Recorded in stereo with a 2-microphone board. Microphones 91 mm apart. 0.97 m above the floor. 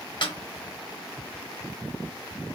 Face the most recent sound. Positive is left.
turn(degrees=55)  # may be behind; listen again after turning